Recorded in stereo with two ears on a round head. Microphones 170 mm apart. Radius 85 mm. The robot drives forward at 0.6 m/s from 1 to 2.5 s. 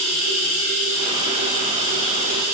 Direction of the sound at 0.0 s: 35° right (ahead or behind).